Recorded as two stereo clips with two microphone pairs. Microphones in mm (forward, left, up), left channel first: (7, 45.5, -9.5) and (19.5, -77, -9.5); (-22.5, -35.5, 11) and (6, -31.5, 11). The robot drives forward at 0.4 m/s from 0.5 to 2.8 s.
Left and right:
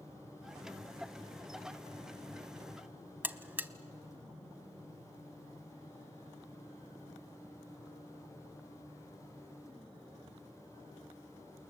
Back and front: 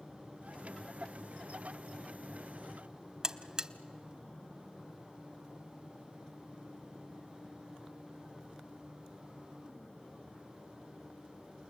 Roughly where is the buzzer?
Ahead right.